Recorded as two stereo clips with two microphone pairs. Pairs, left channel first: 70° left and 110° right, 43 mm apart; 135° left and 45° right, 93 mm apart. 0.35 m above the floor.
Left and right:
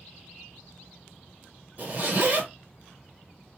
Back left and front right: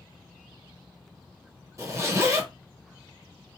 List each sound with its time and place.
1.8 s a zipper: 75° right, 1.3 m